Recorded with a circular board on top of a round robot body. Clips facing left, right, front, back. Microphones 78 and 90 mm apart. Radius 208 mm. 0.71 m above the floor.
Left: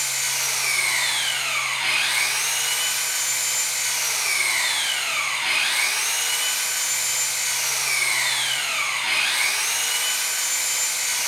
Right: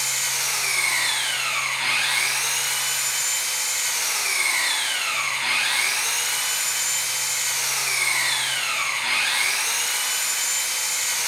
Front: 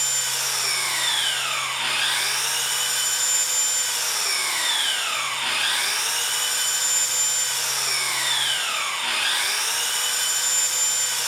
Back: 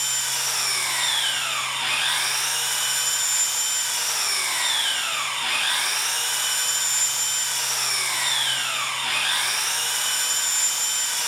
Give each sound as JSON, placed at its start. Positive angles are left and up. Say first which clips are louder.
{"t": 0.0, "sound": "an engine running", "louder": "even, even", "azimuth_deg": -25, "distance_m": 1.7}